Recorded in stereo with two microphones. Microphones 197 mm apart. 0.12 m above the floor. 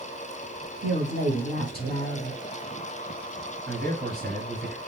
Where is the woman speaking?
50° right (ahead or behind), 1.7 m.